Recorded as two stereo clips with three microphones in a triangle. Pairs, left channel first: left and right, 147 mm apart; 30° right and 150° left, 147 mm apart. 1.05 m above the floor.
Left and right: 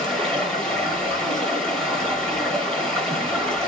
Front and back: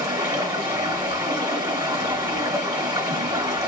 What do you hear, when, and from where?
0.0 s running water: 170° left, 0.9 m